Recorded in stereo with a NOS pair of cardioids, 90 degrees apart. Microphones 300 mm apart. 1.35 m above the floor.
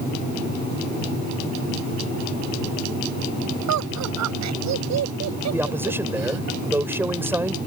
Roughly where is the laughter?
Right.